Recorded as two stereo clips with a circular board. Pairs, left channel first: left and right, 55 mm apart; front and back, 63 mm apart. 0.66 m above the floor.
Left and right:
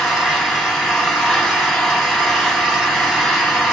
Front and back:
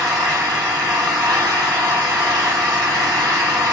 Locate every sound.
0.0 s an engine running: 170° left, 5.5 m